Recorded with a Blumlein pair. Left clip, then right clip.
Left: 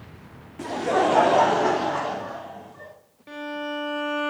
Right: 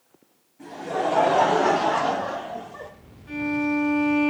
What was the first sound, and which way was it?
Laughter, 40° left.